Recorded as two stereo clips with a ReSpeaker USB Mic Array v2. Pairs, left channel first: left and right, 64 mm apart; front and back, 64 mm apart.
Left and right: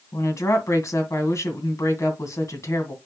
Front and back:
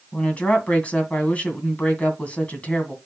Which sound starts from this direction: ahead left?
A woman speaking, at 0.1 s.